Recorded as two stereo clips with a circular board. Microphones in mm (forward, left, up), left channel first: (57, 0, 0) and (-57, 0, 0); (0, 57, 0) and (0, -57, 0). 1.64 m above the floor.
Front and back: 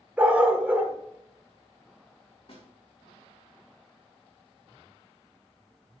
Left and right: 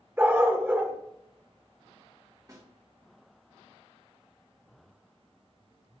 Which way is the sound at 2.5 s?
35° right.